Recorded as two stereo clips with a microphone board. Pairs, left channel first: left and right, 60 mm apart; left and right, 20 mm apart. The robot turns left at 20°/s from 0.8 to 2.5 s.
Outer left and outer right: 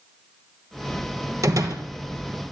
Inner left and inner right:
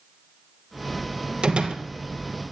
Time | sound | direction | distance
1.4 | a door slam | 65° right (ahead or behind) | 2.5 m